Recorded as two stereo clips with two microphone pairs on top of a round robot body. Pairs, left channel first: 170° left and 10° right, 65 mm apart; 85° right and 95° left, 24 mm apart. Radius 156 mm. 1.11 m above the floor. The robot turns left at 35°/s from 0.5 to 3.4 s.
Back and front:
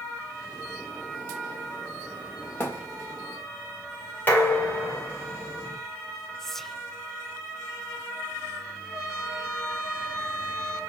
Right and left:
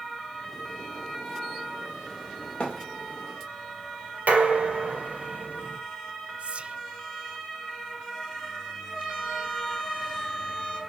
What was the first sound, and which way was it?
A thud, 135° right.